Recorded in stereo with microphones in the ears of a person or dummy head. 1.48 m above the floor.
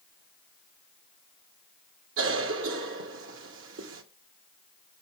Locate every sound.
2.2 s a cough: 80° right, 1.8 m